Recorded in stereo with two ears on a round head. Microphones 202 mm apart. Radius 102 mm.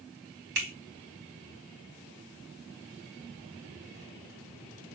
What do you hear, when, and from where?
0.6 s a finger snap: 50° right (ahead or behind), 2 m